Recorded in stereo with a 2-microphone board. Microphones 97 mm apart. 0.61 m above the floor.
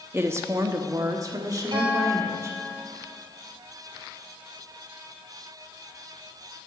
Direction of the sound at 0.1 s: 25° right (ahead or behind).